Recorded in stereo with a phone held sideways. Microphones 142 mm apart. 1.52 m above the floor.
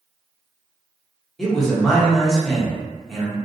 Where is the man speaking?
Centre (ahead or behind), 0.8 m.